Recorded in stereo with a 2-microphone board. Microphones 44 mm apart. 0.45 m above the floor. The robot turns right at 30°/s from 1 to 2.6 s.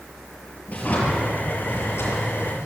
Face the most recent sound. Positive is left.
turn(degrees=85)